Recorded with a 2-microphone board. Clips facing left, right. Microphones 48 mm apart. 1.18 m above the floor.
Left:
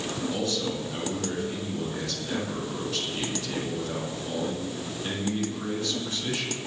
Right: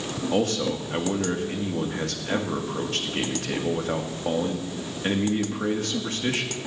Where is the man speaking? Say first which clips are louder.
Right 8 dB; 55° right (ahead or behind), 2.5 m.